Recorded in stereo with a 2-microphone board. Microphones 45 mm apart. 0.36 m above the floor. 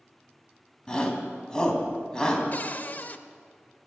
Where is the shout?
15° left (ahead or behind), 3 m.